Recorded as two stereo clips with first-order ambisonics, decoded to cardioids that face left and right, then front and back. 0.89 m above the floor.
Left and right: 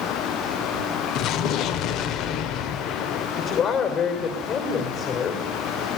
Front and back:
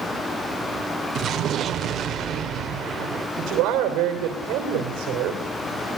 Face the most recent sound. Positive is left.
turn(degrees=140)